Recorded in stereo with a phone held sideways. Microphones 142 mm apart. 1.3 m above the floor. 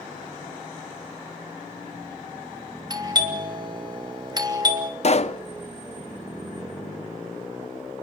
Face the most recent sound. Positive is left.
turn(degrees=50)  # may be behind; listen again after turning